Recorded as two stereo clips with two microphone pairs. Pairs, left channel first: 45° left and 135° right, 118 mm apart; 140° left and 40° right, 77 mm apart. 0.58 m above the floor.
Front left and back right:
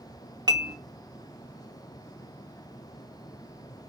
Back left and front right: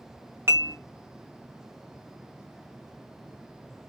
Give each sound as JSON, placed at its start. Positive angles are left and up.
{"t": 0.5, "sound": "dishes clattering", "azimuth_deg": -90, "distance_m": 0.9}